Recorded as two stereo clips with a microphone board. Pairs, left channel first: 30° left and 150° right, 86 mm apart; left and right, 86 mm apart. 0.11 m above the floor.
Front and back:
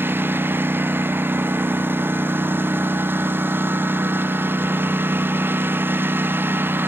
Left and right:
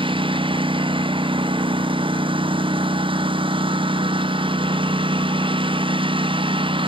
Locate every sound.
0.0 s a lawn mower: 85° right